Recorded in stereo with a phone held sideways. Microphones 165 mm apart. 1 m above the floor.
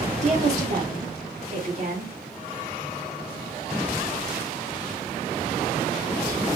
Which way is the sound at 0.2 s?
45° right (ahead or behind).